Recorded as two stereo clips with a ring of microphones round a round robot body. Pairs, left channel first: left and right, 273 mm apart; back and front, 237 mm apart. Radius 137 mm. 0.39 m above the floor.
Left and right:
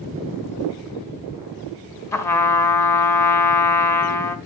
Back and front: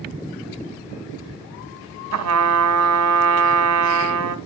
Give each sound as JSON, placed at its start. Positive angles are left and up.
{"t": 2.1, "sound": "a trumpet", "azimuth_deg": 10, "distance_m": 1.7}